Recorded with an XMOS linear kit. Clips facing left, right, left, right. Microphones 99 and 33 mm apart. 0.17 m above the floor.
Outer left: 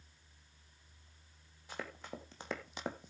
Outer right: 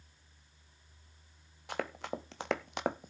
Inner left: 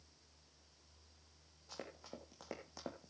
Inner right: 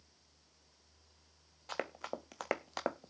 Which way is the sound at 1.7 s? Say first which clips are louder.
Outer right 8 dB, inner right 11 dB; 70° right (ahead or behind).